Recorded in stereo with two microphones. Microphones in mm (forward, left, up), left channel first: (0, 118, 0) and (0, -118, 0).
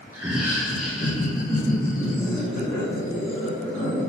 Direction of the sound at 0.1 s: 15° right (ahead or behind).